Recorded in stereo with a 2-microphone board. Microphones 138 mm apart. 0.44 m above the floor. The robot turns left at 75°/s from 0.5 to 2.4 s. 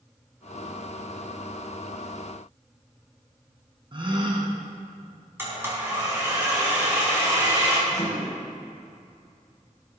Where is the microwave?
30° left (ahead or behind), 4.5 m.